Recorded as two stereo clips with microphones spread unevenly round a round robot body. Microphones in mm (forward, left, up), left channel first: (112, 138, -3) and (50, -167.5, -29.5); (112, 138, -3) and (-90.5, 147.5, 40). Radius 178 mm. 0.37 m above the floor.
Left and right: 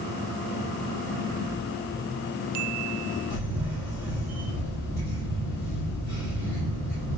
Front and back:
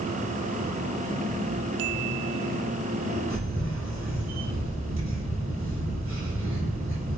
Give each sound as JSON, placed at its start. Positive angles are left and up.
{"t": 3.3, "sound": "a camera shutter", "azimuth_deg": 165, "distance_m": 1.7}